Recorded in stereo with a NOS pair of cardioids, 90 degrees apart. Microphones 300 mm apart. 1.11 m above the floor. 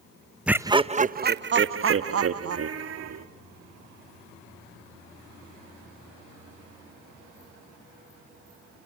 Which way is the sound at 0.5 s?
5° right.